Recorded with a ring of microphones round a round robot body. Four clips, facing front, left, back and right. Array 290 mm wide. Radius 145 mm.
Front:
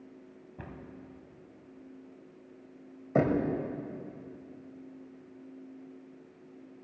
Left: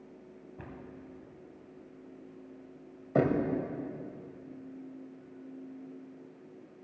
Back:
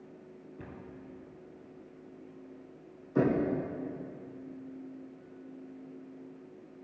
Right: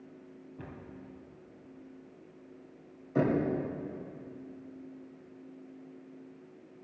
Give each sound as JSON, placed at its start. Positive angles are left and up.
{"t": 0.6, "sound": "a cupboard door", "azimuth_deg": 20, "distance_m": 2.5}
{"t": 3.1, "sound": "knocking", "azimuth_deg": 35, "distance_m": 2.0}